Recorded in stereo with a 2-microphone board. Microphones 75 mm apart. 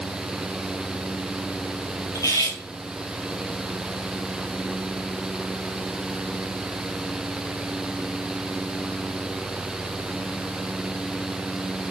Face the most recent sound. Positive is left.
turn(degrees=50)  # may be behind; listen again after turning